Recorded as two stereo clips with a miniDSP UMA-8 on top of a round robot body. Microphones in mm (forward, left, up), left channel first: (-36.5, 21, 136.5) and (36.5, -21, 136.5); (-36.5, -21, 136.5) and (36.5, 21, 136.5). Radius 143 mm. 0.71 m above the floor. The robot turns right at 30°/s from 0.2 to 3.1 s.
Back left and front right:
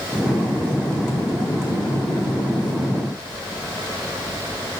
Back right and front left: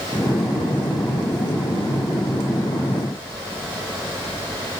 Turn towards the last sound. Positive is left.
No sound to turn to.